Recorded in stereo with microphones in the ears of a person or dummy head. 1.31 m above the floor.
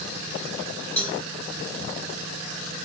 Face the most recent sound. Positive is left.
turn(degrees=5)  # may be behind; listen again after turning